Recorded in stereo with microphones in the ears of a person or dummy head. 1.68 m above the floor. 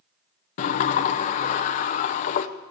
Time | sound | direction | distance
0.6 | a sliding door | 45° left (ahead or behind) | 0.6 m